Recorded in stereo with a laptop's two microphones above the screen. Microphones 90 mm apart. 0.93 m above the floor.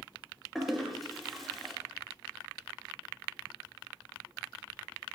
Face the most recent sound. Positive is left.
turn(degrees=0)  # may be behind; listen again after turning